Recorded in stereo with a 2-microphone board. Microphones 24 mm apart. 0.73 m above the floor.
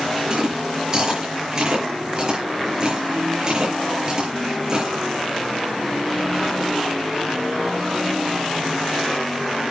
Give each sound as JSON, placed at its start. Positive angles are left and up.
{"t": 0.3, "sound": "chewing", "side_deg": -25, "distance_m": 6.0}